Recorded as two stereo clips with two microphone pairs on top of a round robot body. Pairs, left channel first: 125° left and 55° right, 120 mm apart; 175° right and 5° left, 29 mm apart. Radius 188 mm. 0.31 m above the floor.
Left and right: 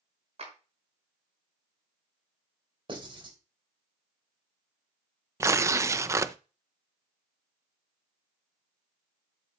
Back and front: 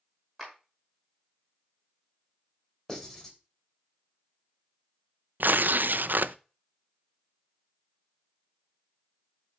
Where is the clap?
85° right, 5.5 m.